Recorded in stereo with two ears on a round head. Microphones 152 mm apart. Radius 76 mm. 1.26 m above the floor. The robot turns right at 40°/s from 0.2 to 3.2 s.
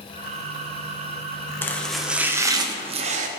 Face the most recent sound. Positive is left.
turn(degrees=-130)